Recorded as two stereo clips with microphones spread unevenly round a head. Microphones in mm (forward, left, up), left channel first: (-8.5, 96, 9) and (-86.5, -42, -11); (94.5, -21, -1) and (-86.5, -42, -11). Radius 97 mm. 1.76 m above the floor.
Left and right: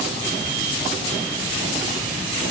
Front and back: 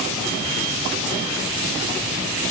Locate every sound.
Only background noise.